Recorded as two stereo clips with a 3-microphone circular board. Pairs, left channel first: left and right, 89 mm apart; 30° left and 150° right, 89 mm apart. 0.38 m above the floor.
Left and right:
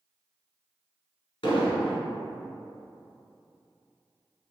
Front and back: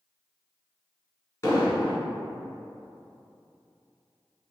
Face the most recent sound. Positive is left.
turn(degrees=85)